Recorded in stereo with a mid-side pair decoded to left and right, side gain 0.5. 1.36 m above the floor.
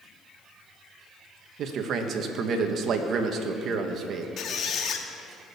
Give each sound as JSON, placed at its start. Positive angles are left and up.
{"t": 1.6, "sound": "a man speaking", "azimuth_deg": -60, "distance_m": 1.7}
{"t": 4.4, "sound": "a squeak", "azimuth_deg": 55, "distance_m": 1.7}